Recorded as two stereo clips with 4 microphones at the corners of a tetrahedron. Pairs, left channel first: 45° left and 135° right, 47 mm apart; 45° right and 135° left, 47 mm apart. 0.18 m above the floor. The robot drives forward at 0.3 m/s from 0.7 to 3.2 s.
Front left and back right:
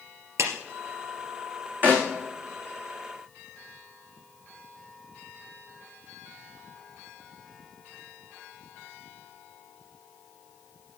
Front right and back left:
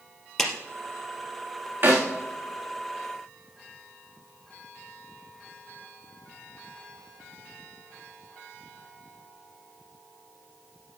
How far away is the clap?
About 3 m.